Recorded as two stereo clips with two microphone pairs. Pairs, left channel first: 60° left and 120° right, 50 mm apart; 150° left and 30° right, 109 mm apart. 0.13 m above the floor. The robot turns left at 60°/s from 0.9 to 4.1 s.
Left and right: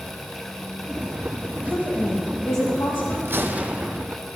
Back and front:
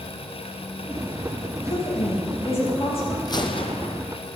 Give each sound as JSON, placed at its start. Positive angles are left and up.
{"t": 1.7, "sound": "a woman speaking", "azimuth_deg": 135, "distance_m": 4.5}
{"t": 3.2, "sound": "a gunshot", "azimuth_deg": -160, "distance_m": 1.0}